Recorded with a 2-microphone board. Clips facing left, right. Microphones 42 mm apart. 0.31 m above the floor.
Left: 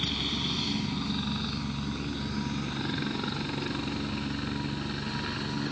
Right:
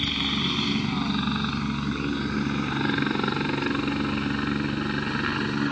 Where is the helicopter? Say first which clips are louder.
Right 5 dB; 35° right (ahead or behind).